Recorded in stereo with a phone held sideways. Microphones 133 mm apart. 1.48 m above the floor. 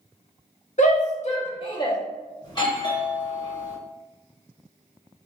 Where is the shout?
65° left (ahead or behind), 0.9 m; by 2.0 s 30° left (ahead or behind), 0.7 m.